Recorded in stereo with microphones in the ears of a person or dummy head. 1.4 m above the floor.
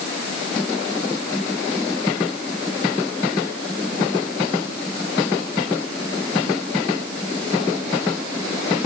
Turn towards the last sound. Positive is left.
No sound to turn to.